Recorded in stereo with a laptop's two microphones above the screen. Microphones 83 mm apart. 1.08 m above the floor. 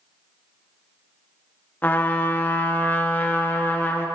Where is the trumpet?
20° left (ahead or behind), 0.6 m.